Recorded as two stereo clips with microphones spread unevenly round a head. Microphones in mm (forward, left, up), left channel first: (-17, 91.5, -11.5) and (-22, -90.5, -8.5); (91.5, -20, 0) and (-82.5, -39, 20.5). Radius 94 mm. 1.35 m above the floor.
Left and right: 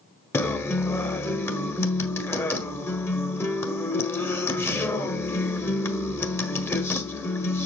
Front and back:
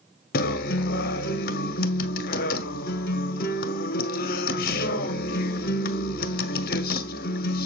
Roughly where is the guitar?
Ahead.